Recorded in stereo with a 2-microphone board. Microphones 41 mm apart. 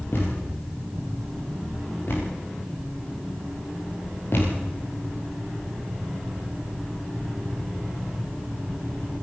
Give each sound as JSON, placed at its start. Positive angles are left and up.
{"t": 0.1, "sound": "a thud", "side_deg": 65, "distance_m": 8.5}